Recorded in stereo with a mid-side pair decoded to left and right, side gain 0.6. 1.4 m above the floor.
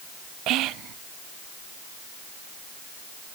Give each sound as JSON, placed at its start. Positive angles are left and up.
{"t": 0.5, "sound": "whispering", "azimuth_deg": -65, "distance_m": 0.9}